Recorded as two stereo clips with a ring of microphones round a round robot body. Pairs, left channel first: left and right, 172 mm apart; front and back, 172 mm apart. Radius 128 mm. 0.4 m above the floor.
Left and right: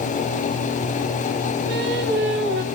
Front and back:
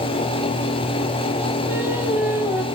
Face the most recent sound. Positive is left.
turn(degrees=-100)